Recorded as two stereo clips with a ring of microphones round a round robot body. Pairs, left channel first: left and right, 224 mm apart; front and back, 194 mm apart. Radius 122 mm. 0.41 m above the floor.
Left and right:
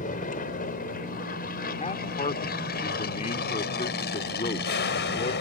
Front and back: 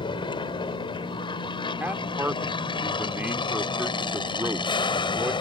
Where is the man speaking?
110° left.